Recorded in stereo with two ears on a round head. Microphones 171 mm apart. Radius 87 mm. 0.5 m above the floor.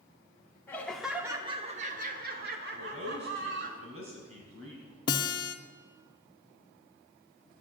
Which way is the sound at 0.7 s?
15° left (ahead or behind).